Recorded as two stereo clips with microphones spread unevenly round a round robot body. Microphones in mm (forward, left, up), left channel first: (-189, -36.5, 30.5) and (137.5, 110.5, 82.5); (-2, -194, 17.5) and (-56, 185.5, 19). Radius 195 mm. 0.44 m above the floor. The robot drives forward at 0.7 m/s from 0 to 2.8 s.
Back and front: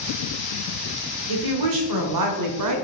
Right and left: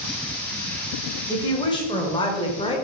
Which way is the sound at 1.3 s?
5° right.